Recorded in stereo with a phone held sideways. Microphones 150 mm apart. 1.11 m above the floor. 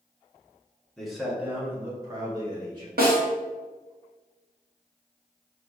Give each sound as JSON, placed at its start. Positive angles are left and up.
{"t": 1.0, "sound": "a man speaking", "side_deg": 5, "distance_m": 1.1}
{"t": 3.0, "sound": "a snare drum", "side_deg": -80, "distance_m": 1.3}